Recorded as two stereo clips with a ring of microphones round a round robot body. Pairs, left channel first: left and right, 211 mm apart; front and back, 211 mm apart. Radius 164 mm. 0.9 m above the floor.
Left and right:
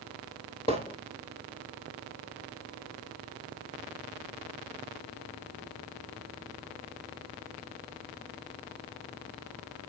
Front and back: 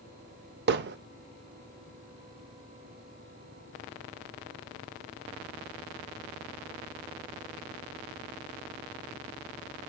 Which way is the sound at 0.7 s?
160° left.